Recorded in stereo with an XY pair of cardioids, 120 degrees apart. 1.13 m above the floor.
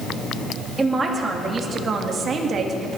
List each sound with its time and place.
0.8 s a man speaking: 25° right, 2.5 m; by 3.0 s 50° right, 2 m